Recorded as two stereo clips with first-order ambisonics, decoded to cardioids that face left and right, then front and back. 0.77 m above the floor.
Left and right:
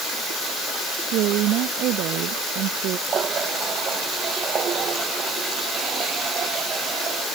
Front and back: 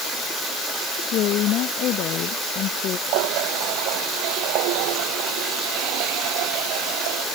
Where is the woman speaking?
50° right.